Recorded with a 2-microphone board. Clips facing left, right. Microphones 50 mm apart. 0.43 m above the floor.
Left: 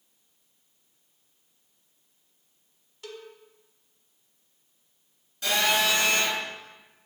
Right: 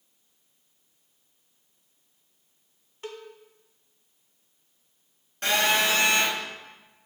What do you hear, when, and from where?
3.0 s a cowbell: 35° right (ahead or behind), 1.3 m
5.4 s a phone buzzing: 45° right (ahead or behind), 4.5 m